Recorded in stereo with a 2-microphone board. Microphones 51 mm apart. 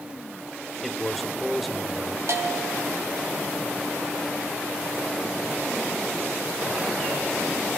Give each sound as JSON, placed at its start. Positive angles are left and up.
{"t": 0.8, "sound": "a man speaking", "side_deg": 0, "distance_m": 1.5}
{"t": 2.3, "sound": "a bell", "side_deg": -75, "distance_m": 2.5}